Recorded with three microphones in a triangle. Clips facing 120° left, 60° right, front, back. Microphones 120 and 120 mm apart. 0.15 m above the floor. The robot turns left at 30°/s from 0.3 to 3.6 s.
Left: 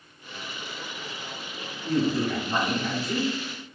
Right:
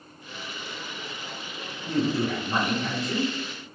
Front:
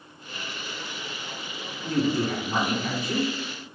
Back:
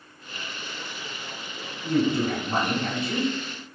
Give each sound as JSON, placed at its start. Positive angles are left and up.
{"t": 1.8, "sound": "a man speaking", "azimuth_deg": -120, "distance_m": 1.4}